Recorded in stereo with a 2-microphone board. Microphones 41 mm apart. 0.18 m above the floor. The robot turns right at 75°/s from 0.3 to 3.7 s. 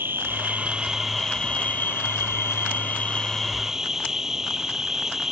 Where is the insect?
65° right; by 5.3 s 170° right.